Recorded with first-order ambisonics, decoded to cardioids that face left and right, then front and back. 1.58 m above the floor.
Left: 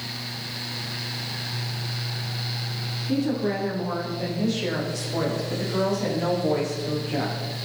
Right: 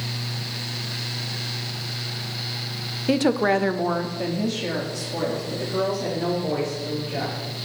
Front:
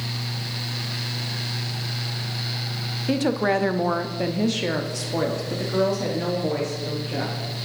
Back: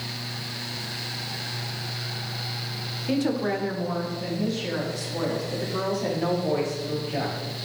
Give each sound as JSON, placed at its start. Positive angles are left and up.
{"t": 3.1, "sound": "a woman speaking", "azimuth_deg": -80, "distance_m": 0.5}